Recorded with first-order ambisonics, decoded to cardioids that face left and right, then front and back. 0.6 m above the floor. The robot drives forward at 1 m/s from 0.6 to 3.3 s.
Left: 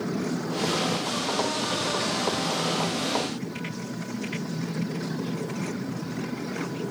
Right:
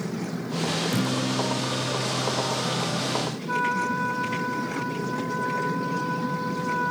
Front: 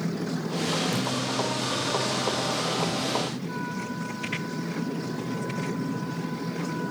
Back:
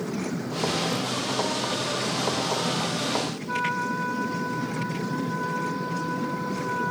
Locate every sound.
0.9 s a guitar: 75° right; by 3.4 s 90° right
3.5 s a trumpet: 120° right